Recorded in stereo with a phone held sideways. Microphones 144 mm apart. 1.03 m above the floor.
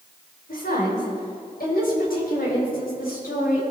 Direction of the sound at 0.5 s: 80° left.